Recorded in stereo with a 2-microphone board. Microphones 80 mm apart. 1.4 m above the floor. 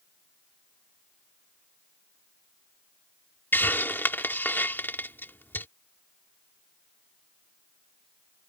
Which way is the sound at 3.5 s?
25° left (ahead or behind).